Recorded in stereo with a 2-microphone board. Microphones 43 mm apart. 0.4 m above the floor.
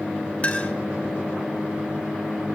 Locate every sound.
0.4 s a clink: 35° left (ahead or behind), 1.1 m